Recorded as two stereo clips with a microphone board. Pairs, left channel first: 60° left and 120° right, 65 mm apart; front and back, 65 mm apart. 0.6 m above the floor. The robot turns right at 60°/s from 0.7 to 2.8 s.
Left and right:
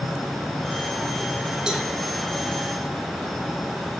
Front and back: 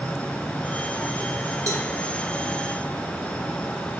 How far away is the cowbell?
About 1.0 m.